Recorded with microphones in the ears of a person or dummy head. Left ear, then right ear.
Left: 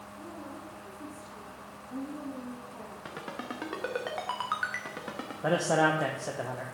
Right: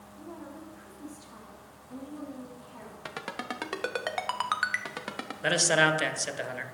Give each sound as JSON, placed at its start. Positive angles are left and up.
{"t": 0.2, "sound": "a woman speaking", "side_deg": -25, "distance_m": 3.0}
{"t": 3.0, "sound": "a ringtone", "side_deg": -30, "distance_m": 0.8}
{"t": 5.4, "sound": "a man speaking", "side_deg": -60, "distance_m": 0.8}